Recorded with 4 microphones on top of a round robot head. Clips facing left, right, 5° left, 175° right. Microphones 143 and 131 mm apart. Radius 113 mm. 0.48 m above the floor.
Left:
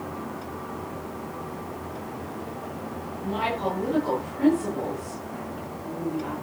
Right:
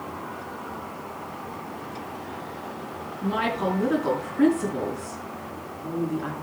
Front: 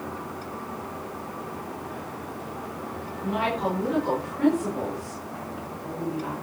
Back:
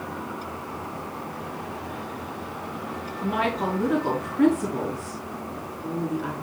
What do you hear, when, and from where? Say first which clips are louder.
3.2 s a woman speaking: right 2 dB, back 1 dB; 130° right, 6 m